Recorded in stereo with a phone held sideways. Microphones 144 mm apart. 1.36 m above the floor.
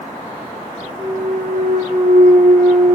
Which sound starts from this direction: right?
A clunk, at 1.0 s.